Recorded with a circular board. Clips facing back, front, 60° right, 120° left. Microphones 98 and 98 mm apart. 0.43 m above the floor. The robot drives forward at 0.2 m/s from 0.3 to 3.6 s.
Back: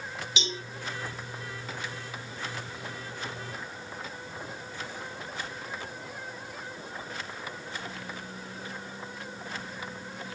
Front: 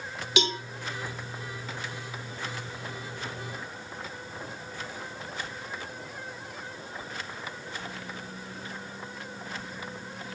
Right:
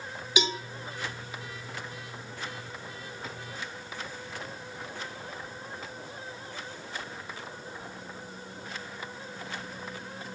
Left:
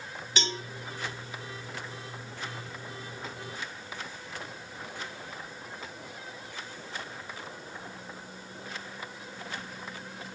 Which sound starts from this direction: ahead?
A cowbell, at 0.4 s.